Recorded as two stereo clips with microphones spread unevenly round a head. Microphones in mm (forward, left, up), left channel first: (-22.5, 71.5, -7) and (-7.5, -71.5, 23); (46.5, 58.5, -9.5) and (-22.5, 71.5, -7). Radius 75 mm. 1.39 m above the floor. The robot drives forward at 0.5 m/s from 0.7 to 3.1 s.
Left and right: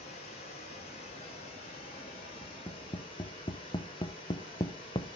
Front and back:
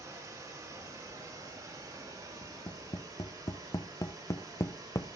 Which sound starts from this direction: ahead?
Tapping, at 2.4 s.